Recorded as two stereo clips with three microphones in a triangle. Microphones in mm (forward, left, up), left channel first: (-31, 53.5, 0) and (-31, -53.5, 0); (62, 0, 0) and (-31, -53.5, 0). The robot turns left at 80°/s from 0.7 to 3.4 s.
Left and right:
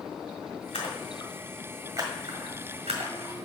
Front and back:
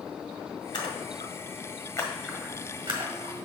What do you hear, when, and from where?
0.7 s a splash: 70° left, 1.6 m; by 3.4 s 140° right, 1.6 m